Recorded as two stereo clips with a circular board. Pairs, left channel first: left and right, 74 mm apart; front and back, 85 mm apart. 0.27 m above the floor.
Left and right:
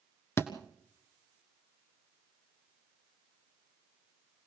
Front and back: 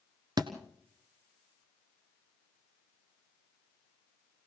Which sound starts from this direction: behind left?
A thud, at 0.4 s.